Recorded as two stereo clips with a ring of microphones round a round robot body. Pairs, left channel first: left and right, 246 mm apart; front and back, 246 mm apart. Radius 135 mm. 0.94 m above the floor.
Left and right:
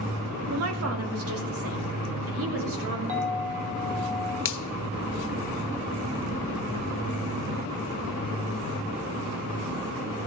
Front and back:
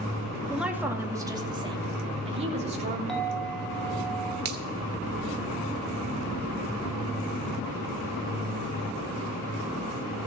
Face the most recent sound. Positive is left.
turn(degrees=125)